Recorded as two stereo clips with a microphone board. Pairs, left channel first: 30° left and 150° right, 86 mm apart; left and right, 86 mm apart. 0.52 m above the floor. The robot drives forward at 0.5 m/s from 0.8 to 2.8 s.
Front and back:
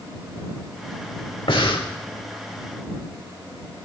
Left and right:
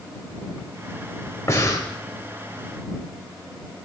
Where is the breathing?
35° left, 1.0 m; by 1.9 s 45° left, 0.8 m.